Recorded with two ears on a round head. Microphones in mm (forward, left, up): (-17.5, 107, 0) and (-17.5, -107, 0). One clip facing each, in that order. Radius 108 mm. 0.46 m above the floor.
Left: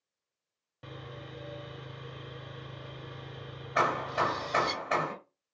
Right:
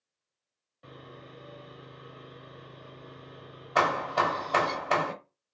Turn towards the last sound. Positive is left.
turn(degrees=-55)  # may be behind; listen again after turning